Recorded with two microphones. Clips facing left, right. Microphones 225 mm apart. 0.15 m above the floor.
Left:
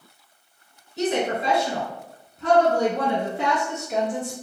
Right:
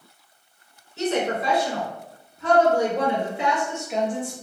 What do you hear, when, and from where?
1.0 s a woman speaking: 15° left (ahead or behind), 1.2 m; by 4.3 s 40° left (ahead or behind), 2 m